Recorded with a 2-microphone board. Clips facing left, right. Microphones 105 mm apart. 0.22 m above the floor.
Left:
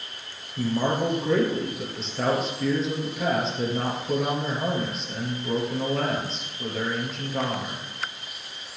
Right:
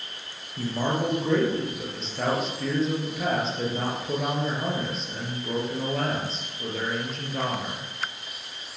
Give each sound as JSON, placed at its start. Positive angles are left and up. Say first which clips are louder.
{"t": 0.6, "sound": "a man speaking", "louder": "left 2 dB", "side_deg": 0, "distance_m": 4.0}